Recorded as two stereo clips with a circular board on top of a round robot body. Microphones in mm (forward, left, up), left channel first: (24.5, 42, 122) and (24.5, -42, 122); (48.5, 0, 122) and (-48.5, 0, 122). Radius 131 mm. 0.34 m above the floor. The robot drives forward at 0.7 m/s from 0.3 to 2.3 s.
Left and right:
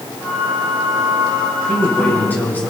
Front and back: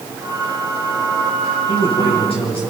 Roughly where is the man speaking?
Ahead.